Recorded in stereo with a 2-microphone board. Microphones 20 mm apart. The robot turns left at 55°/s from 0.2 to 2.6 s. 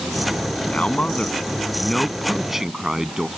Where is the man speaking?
90° left; by 3.3 s 15° right.